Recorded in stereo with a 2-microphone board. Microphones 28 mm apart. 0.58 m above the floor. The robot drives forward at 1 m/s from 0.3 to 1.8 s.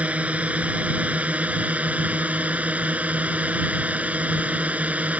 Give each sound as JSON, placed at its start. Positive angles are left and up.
{"t": 0.0, "sound": "a drone", "side_deg": -60}